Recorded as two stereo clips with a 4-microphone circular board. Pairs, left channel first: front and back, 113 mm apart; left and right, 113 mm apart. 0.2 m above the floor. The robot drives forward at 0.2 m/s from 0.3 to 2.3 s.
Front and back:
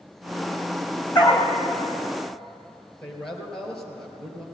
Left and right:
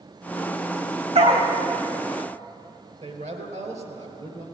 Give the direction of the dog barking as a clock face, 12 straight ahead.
2 o'clock.